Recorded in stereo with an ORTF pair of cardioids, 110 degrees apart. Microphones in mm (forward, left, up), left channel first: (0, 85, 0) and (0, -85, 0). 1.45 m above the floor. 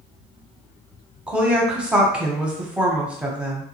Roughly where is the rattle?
I don't hear a rattle.